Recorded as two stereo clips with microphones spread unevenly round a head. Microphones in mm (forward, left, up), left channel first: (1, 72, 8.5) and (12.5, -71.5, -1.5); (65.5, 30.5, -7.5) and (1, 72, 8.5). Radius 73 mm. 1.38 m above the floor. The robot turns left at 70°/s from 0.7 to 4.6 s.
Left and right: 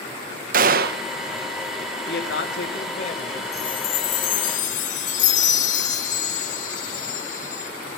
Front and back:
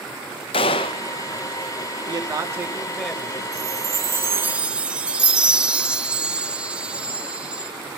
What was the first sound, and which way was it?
A gunshot, 55° right.